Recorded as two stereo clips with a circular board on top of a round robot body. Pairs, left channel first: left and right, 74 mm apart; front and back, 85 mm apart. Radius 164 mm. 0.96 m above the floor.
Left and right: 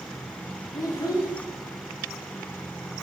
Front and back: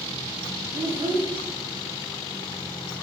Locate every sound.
0.7 s a child speaking: 135° left, 1.0 m